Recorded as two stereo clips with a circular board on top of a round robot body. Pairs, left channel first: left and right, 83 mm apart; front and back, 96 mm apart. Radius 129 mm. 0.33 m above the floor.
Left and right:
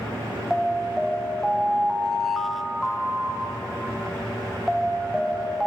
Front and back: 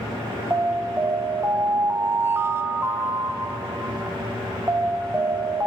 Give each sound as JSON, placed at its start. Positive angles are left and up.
{"t": 0.5, "sound": "an alarm", "azimuth_deg": 175, "distance_m": 1.0}